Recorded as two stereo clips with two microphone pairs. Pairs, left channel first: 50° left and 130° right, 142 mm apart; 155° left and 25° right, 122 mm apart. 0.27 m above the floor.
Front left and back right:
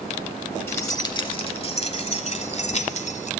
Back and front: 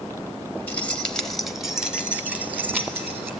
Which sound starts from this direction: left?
Keys jangling, at 0.7 s.